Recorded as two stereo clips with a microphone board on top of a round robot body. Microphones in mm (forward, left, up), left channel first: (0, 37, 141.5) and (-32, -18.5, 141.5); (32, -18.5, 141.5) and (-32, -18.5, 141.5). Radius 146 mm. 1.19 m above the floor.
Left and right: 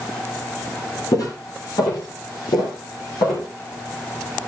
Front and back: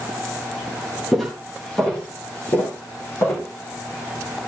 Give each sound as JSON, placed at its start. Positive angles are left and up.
{"t": 1.1, "sound": "footsteps", "azimuth_deg": 90, "distance_m": 1.9}